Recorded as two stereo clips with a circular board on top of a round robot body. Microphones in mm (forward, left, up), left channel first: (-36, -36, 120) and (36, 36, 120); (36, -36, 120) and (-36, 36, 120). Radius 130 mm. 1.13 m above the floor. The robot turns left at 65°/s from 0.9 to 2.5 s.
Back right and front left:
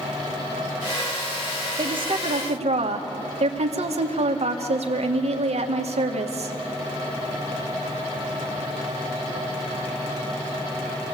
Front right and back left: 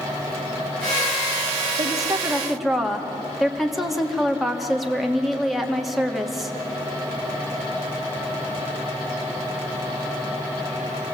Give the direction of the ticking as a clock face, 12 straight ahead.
I don't hear ticking.